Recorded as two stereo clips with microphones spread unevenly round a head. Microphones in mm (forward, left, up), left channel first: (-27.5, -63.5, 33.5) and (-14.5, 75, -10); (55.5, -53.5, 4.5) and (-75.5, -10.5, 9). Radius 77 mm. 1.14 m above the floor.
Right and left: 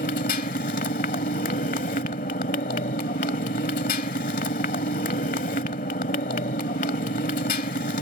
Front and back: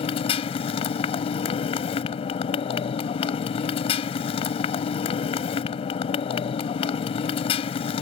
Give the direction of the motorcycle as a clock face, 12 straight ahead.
2 o'clock.